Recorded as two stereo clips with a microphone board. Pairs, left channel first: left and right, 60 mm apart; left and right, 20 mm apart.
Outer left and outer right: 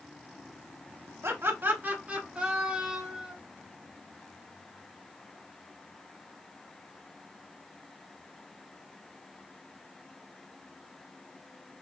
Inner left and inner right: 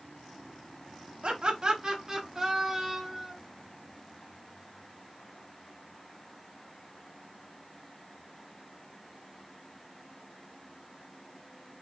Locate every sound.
1.2 s laughter: 45° right (ahead or behind), 1.0 m; by 3.3 s 5° right (ahead or behind), 1.9 m